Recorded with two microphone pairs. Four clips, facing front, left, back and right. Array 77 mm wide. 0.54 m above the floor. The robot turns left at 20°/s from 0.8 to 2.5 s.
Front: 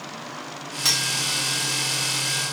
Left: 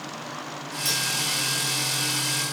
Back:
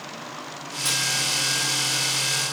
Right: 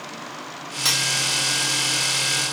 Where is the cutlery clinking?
45° right, 2.5 m; by 1.1 s 50° right, 2.5 m.